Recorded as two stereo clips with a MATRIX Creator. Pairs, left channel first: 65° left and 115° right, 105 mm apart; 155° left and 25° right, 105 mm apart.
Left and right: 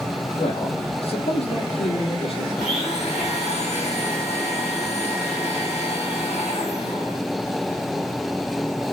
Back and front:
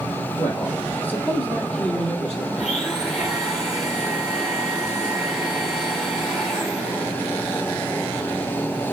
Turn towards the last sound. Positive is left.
turn(degrees=70)